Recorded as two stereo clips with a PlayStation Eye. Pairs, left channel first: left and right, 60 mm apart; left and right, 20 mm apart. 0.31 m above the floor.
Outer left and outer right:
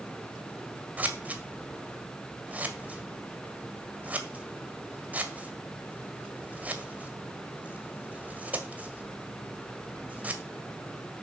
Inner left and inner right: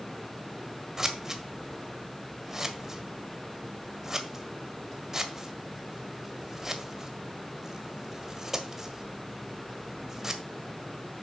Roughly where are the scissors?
Right.